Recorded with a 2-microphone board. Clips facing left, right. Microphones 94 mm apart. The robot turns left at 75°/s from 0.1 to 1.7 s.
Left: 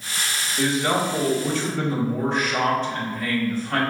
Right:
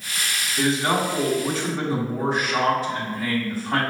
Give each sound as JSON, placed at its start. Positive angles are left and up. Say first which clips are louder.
{"t": 0.6, "sound": "a man speaking", "louder": "even", "azimuth_deg": -80, "distance_m": 1.5}